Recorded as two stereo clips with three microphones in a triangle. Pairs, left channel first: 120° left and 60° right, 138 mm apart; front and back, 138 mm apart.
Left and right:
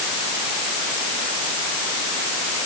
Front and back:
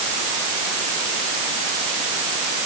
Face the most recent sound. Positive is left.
No sound to turn to.